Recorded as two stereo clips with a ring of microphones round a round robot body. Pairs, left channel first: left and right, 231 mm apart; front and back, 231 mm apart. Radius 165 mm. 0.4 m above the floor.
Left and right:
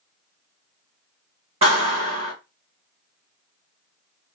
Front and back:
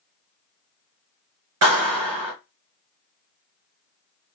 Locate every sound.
1.6 s a clap: 160° right, 1.6 m